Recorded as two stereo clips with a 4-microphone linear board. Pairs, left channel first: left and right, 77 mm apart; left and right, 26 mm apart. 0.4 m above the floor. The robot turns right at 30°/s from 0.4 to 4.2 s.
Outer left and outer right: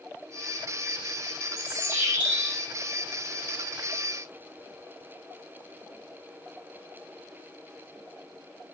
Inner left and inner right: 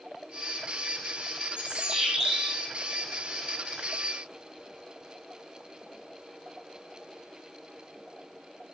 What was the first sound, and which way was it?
A bird, 35° right.